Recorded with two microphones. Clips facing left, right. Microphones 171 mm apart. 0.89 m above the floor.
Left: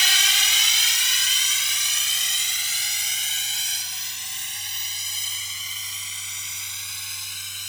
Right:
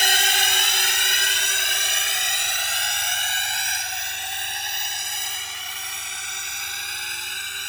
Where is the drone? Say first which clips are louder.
Right 8 dB; 65° right (ahead or behind); by 7.7 s 75° right (ahead or behind).